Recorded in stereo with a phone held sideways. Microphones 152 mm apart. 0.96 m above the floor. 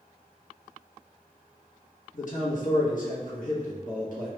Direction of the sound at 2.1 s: 60° left (ahead or behind).